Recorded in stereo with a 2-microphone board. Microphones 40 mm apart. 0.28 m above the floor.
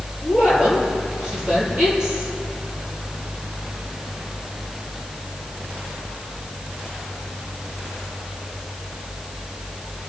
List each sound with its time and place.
0.2 s a woman speaking: 20° right (ahead or behind), 6 m